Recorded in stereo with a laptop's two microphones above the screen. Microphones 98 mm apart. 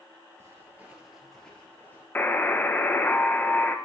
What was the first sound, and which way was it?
Footsteps, 25° right (ahead or behind).